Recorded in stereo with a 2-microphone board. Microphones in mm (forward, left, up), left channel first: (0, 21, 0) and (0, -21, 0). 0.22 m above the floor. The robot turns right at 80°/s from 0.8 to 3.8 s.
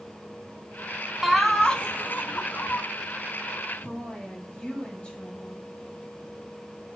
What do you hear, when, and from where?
1.2 s laughter: 10° right, 1.4 m; by 2.8 s 115° left, 1.4 m
3.8 s a woman speaking: 25° left (ahead or behind), 6 m